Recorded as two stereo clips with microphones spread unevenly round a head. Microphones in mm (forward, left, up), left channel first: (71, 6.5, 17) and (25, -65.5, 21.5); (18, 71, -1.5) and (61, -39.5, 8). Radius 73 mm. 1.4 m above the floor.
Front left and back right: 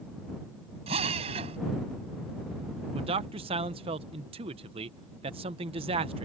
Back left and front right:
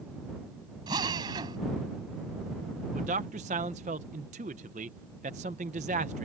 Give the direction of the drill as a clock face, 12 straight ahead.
4 o'clock.